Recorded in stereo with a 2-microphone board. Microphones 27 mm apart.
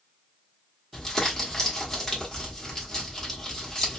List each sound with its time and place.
0.9 s crumpling: 15° left (ahead or behind), 1.1 m